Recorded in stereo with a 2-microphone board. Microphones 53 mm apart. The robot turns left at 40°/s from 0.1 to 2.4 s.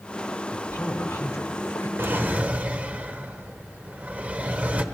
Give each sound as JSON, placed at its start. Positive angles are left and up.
{"t": 0.5, "sound": "a man speaking", "azimuth_deg": 140, "distance_m": 2.5}
{"t": 2.0, "sound": "a drawer", "side_deg": -45, "distance_m": 1.3}